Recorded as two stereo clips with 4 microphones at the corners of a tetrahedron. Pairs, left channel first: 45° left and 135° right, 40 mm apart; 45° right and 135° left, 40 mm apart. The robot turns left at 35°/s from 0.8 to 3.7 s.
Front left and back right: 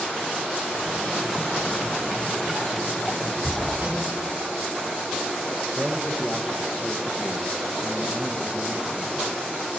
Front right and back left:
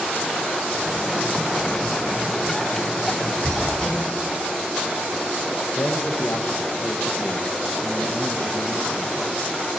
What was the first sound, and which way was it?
Hammering, 105° right.